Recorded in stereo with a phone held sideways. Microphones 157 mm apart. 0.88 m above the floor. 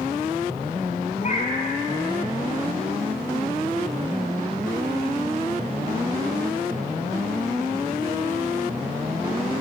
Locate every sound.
1.2 s a cat meowing: 50° left (ahead or behind), 4 m